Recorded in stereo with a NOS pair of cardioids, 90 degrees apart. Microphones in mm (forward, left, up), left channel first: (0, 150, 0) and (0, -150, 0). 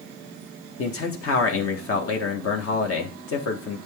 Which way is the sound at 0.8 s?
50° left.